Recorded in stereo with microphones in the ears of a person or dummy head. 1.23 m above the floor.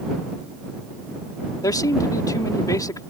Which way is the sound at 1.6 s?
20° left (ahead or behind).